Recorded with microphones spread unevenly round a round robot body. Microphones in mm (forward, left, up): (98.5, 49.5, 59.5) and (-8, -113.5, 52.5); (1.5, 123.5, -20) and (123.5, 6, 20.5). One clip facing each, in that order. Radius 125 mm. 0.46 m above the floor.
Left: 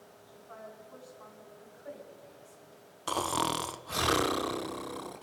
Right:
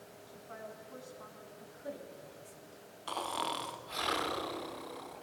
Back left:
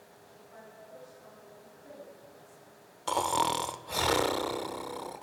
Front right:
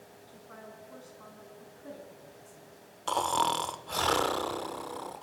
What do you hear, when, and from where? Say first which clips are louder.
0.3 s a woman speaking: even, front right 3 dB; 55° right, 5 m; by 1.5 s 65° right, 5 m
1.6 s a woman speaking: right 2 dB, front right 3 dB; 80° right, 3 m
3.1 s snoring: left 6 dB, even; 65° left, 0.8 m